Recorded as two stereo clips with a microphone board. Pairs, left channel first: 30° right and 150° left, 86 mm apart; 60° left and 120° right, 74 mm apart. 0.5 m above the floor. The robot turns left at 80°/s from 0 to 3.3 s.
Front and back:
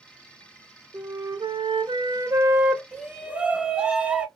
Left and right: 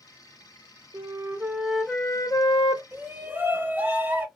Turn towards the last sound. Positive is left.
turn(degrees=-150)